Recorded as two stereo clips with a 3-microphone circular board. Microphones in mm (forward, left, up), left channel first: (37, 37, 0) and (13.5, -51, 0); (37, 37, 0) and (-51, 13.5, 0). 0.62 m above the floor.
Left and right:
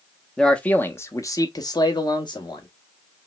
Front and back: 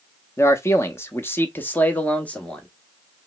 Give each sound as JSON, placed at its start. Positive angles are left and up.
{"t": 0.4, "sound": "a man speaking", "azimuth_deg": -5, "distance_m": 0.8}